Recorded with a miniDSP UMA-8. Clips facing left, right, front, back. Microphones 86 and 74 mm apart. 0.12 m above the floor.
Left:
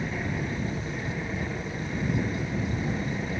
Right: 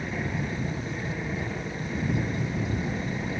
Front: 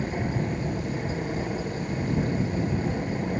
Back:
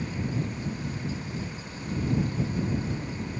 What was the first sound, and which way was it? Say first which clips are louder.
An aircraft: even, front 3 dB; straight ahead.